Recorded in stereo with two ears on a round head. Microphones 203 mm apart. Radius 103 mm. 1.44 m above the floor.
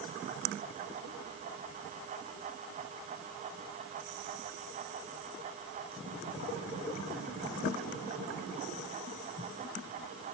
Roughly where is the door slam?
I don't hear a door slam.